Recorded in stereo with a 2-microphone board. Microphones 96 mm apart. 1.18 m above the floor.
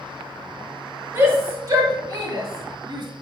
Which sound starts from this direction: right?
A shout, at 1.1 s.